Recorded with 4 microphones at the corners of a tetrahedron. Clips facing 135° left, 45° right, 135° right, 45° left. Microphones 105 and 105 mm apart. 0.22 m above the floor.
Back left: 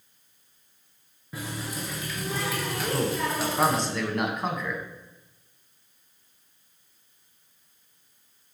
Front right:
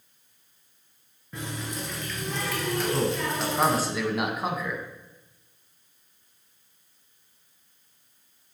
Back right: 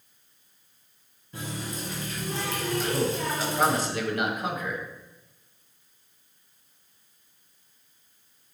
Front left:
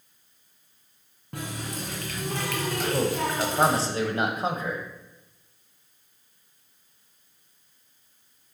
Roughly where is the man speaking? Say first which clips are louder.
Even, front left 3 dB; ahead left.